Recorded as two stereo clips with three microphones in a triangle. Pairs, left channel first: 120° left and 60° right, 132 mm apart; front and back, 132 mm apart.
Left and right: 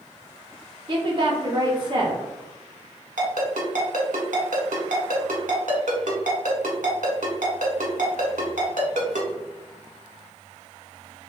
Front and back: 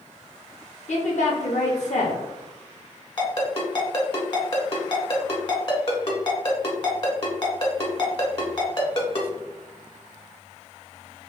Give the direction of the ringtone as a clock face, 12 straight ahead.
2 o'clock.